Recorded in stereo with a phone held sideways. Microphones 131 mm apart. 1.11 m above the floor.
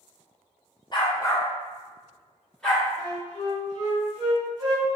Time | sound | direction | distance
0.9 | a dog barking | 35° left (ahead or behind) | 0.6 m
3.0 | a flute | 30° right (ahead or behind) | 1.3 m